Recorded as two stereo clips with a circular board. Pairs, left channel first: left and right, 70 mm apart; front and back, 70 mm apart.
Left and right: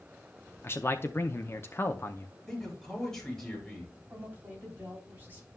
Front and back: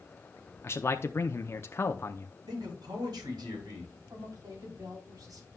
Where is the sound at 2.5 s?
175° left, 5 m.